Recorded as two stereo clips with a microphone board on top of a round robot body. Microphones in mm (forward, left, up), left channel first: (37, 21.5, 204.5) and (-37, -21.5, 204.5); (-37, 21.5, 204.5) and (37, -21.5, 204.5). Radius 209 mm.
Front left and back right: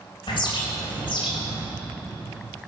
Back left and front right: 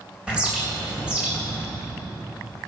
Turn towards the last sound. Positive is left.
turn(degrees=50)